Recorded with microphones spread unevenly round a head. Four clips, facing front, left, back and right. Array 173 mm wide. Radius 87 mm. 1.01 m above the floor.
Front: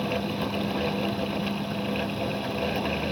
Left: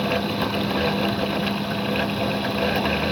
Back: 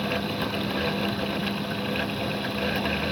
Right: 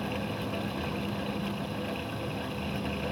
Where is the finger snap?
I don't hear a finger snap.